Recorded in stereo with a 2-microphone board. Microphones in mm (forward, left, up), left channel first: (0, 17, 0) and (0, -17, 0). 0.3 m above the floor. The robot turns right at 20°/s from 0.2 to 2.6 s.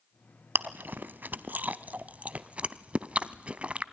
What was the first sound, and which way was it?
Chewing, 75° right (ahead or behind).